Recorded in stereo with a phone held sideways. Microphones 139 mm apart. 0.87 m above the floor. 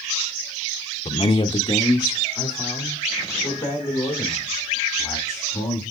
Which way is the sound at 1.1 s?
40° left (ahead or behind).